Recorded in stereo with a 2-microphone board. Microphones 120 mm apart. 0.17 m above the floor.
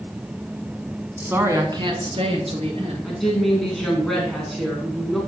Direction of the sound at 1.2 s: 10° right (ahead or behind).